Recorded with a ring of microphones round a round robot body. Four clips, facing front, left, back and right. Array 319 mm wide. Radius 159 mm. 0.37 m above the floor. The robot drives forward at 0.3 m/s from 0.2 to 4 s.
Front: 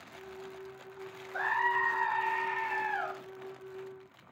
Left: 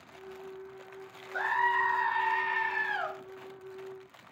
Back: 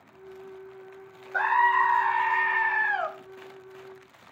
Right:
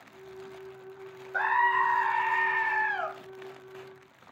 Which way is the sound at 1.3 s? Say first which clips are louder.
Right 3 dB, back 9 dB; 160° right.